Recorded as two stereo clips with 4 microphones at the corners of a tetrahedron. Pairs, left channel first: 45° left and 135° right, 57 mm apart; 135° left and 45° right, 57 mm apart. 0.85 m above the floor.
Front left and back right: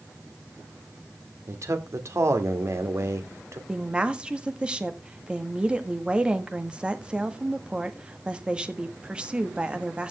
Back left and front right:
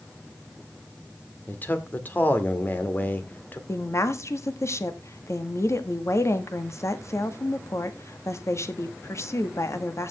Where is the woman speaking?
155° left, 1.5 m.